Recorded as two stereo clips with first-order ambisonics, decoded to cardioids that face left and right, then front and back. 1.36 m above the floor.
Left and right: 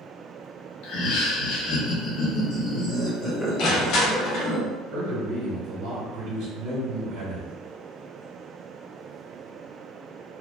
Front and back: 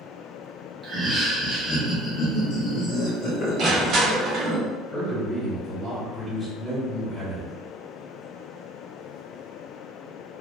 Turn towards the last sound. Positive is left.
turn(degrees=-80)